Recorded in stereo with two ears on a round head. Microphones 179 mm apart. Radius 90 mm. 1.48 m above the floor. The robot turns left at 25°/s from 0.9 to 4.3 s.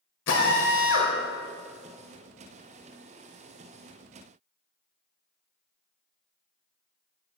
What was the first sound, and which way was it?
A drill, 65° left (ahead or behind).